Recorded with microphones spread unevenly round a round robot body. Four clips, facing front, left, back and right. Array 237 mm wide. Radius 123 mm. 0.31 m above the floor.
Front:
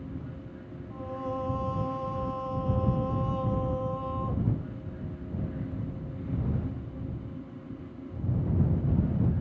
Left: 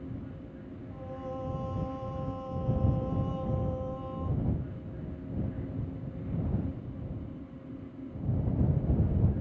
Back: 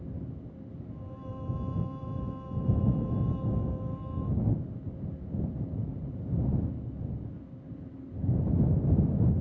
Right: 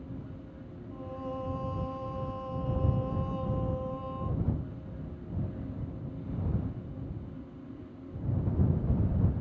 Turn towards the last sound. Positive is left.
turn(degrees=0)